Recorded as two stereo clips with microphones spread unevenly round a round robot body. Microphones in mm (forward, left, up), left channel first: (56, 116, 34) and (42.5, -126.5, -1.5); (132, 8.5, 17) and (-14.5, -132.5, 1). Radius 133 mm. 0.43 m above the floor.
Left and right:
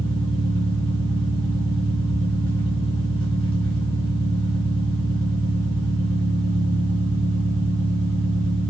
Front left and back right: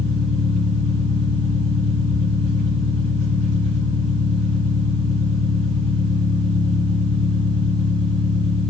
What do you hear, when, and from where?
0.0 s an engine running: 160° left, 3 m